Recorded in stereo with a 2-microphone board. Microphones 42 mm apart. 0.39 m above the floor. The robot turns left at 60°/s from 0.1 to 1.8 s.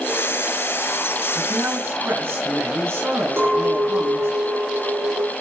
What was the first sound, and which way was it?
A man speaking, 55° right (ahead or behind).